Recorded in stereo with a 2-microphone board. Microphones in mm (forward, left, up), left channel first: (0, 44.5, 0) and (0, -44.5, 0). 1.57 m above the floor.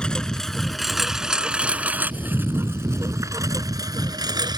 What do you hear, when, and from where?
0.0 s a lawn mower: 10° left (ahead or behind); by 4.6 s 50° right (ahead or behind)